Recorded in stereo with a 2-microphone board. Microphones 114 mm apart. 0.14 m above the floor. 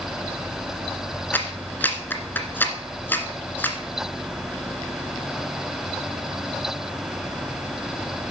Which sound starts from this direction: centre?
A clap, at 1.3 s.